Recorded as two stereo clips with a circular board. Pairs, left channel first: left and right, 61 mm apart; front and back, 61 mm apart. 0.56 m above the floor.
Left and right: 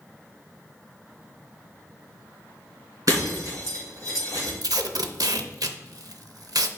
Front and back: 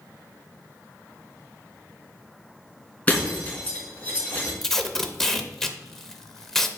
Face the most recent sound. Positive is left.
turn(degrees=-85)